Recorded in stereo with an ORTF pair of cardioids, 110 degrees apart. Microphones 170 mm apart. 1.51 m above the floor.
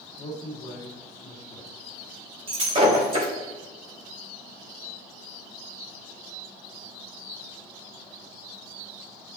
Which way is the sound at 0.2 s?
25° left.